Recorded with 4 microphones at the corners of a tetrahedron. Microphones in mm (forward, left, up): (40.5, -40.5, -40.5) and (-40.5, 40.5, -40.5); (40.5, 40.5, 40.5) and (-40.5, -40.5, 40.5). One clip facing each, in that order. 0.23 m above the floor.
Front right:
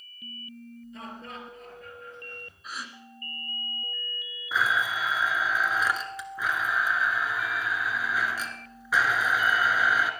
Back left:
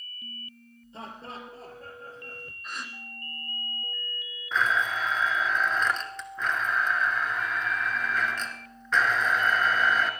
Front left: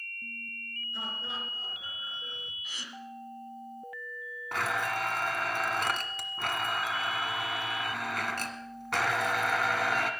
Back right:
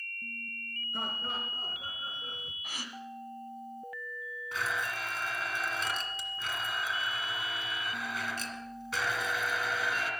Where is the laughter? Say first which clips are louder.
Back left 2 dB, back right 2 dB; 170° right, 3 m; by 2.5 s straight behind, 2.5 m.